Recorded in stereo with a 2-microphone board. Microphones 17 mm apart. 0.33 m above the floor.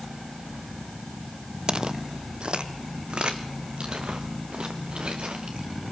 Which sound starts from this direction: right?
Footsteps, at 1.7 s.